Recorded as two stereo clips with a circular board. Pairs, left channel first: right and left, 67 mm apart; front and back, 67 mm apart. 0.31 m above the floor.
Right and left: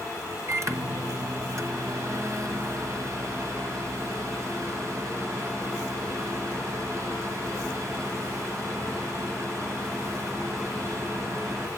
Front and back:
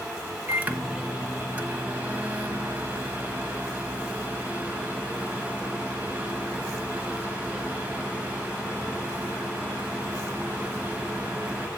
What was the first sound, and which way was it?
A microwave, 120° left.